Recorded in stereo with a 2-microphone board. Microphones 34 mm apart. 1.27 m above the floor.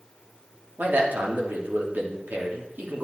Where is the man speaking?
75° right (ahead or behind), 3 m.